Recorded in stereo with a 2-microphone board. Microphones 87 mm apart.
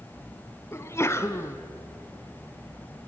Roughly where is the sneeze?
Left.